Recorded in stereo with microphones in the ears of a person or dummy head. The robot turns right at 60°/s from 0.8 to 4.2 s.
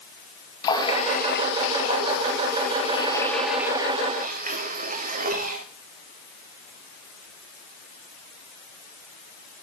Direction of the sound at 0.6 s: 30° left.